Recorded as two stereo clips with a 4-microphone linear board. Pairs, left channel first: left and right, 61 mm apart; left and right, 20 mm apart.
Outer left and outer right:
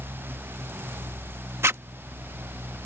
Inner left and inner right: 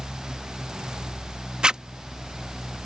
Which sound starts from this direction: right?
A zipper, at 1.6 s.